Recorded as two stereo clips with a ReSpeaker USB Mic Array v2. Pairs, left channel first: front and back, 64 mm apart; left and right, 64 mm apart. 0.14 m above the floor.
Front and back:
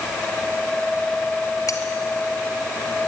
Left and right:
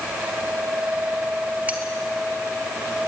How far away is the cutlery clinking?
About 1.7 m.